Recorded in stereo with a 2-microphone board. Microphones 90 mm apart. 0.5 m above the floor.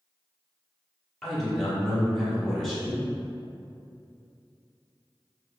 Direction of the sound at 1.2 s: 5° left (ahead or behind).